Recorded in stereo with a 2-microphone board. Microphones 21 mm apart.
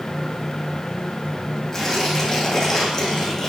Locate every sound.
1.7 s tearing paper: 10° left (ahead or behind), 7 m